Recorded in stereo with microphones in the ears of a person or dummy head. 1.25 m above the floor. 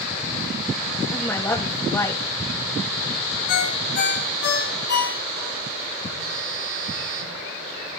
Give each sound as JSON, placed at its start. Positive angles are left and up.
{"t": 1.1, "sound": "a woman speaking", "side_deg": 10, "distance_m": 2.0}
{"t": 3.5, "sound": "a ringtone", "side_deg": 60, "distance_m": 6.0}
{"t": 6.2, "sound": "a phone buzzing", "side_deg": -80, "distance_m": 8.0}